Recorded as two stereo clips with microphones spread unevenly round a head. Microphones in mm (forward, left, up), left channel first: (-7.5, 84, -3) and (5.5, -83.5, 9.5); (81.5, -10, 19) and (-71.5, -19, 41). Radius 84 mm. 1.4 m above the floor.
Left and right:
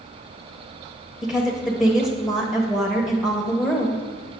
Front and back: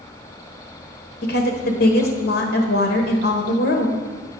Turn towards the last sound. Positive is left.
turn(degrees=0)